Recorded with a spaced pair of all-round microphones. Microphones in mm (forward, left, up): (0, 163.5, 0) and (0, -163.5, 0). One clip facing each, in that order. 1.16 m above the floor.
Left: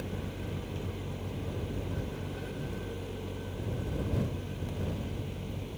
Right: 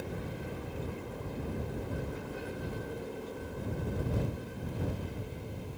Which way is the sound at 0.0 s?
85° left.